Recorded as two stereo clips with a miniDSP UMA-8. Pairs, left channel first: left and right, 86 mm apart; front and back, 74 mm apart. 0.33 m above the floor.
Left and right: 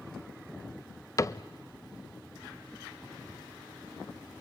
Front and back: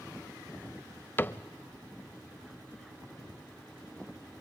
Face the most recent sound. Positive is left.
turn(degrees=55)